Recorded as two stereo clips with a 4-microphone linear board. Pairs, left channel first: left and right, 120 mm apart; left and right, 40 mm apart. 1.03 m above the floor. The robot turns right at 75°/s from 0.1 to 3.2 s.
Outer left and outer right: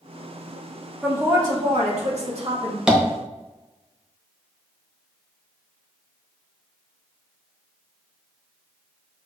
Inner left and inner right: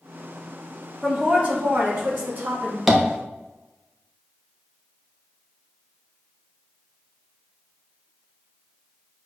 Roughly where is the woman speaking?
Behind.